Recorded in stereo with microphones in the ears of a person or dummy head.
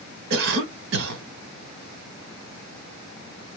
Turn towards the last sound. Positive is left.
turn(degrees=-60)  # may be behind; listen again after turning